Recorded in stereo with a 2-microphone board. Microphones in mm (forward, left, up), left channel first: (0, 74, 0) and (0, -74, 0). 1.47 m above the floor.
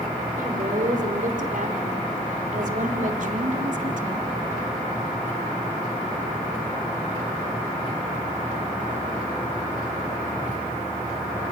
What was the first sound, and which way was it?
A woman speaking, 65° right (ahead or behind).